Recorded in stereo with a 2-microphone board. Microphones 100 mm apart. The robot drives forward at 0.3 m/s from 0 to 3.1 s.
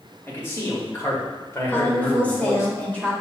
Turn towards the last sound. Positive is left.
turn(degrees=15)  # may be behind; listen again after turning